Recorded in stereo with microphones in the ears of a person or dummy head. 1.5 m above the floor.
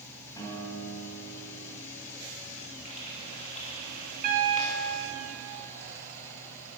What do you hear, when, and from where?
0.4 s a guitar: 20° left (ahead or behind), 3.5 m
2.9 s frying: 35° left (ahead or behind), 2.5 m
4.2 s a piano: 45° right (ahead or behind), 1.9 m